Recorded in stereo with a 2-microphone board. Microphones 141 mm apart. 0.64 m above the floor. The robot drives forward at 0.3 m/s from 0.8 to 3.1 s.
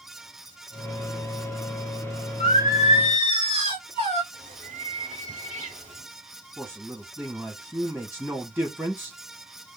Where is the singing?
45° left (ahead or behind), 1.3 m; by 4.2 s 40° left (ahead or behind), 1.4 m.